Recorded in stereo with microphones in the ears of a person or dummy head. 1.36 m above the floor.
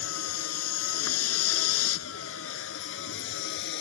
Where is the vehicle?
80° left; by 3.8 s 65° left (ahead or behind).